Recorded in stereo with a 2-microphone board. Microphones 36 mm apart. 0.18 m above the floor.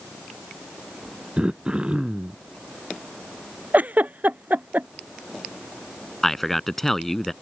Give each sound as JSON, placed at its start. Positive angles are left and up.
{"t": 1.4, "sound": "throat clearing", "side_deg": -30}
{"t": 3.7, "sound": "a giggle", "side_deg": -50}
{"t": 6.2, "sound": "a man speaking", "side_deg": 5}